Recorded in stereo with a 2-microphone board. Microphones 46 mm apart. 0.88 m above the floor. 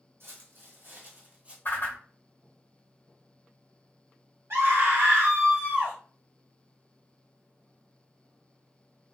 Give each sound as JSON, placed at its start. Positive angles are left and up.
{"t": 0.2, "sound": "footsteps", "side_deg": -60, "distance_m": 1.7}
{"t": 1.6, "sound": "a whoosh", "side_deg": 45, "distance_m": 1.0}
{"t": 4.5, "sound": "a scream", "side_deg": -65, "distance_m": 1.7}